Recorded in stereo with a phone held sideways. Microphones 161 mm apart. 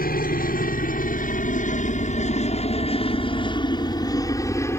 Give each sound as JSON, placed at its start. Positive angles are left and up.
{"t": 0.0, "sound": "a helicopter", "side_deg": 65}